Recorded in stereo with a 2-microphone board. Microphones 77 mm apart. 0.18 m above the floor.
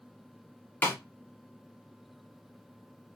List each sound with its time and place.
0.8 s a snare drum: 25° left (ahead or behind), 0.8 m